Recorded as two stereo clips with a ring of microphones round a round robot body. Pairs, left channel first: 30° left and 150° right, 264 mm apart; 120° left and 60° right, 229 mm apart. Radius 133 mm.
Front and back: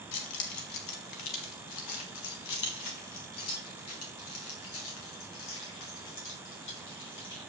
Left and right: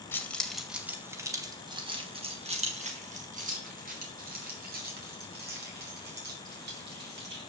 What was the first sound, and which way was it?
Keys jangling, 40° left.